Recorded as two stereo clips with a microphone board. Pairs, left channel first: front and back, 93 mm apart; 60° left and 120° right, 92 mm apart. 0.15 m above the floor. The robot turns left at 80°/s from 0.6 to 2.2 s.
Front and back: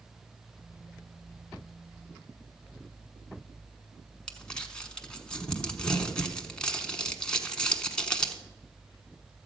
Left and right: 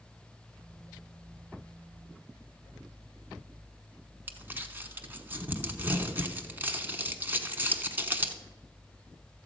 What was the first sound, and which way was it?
Crumpling, 70° right.